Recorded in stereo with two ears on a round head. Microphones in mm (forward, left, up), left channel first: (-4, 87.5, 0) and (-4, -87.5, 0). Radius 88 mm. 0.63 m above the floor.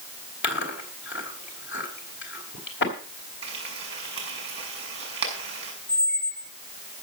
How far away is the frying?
About 6 m.